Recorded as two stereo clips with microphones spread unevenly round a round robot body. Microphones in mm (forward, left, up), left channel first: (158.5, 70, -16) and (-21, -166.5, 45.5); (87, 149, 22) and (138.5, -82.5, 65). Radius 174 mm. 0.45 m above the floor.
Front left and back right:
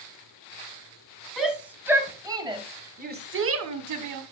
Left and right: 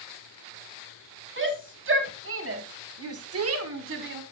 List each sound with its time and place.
1.4 s a shout: 35° right, 4 m; by 4.2 s 130° right, 1.6 m